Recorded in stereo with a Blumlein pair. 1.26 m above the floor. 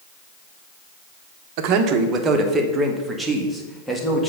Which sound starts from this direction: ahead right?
A man speaking, at 1.6 s.